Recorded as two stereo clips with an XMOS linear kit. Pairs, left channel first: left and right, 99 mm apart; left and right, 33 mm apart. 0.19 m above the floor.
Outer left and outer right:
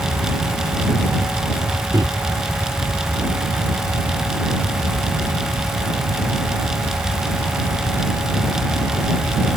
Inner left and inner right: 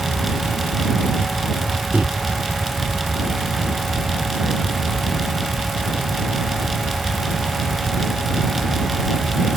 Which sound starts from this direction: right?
A microwave, at 1.9 s.